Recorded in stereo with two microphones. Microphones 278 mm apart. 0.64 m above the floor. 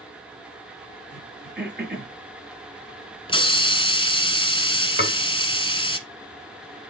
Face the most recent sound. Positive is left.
turn(degrees=35)  # may be behind; listen again after turning